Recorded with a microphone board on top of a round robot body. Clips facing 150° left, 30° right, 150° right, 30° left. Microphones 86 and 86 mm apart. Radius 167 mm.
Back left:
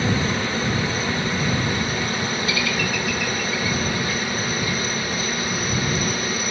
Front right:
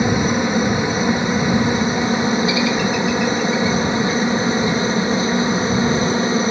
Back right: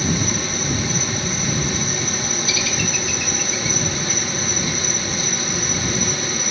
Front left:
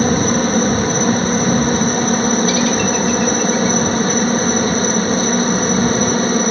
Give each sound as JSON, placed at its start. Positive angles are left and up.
{"t": 0.0, "sound": "a helicopter", "azimuth_deg": 35}